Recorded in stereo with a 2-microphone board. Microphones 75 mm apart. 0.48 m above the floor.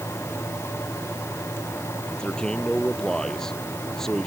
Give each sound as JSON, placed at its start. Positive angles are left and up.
{"t": 2.1, "sound": "a man speaking", "side_deg": 15}